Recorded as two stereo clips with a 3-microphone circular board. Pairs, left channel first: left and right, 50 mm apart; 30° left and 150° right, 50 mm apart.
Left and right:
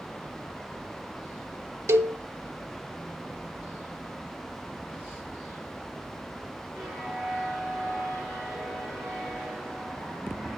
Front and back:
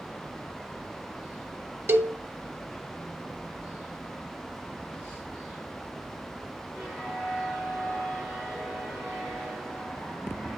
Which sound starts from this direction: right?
A cowbell, at 1.9 s.